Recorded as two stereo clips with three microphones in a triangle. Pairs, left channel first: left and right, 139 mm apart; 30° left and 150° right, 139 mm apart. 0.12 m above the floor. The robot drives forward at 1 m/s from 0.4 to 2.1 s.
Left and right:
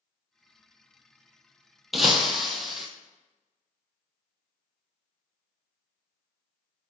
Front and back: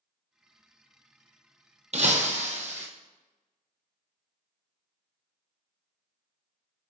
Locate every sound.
1.9 s breaking glass: straight behind, 0.8 m